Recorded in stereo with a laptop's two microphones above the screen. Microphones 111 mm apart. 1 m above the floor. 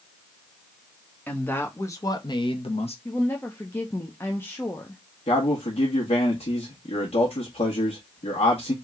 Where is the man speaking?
65° left (ahead or behind), 1.6 m.